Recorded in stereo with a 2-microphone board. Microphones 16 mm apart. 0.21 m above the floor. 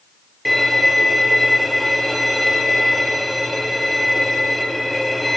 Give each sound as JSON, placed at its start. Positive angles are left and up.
{"t": 0.5, "sound": "a violin", "side_deg": 0, "distance_m": 0.8}